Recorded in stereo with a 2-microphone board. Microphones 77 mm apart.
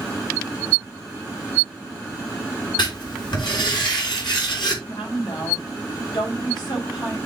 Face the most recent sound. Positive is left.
turn(degrees=85)